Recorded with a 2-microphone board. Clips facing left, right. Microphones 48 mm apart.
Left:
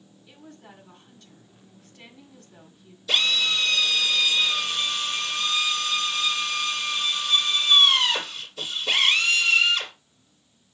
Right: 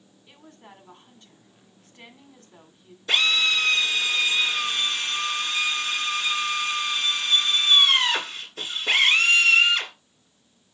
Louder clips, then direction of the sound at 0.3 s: Left 1 dB; 30° right (ahead or behind).